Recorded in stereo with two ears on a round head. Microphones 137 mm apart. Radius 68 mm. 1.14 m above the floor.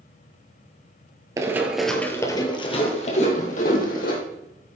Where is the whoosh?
55° left (ahead or behind), 4.5 m.